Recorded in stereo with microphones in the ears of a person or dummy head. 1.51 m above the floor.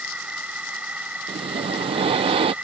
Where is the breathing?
35° right (ahead or behind).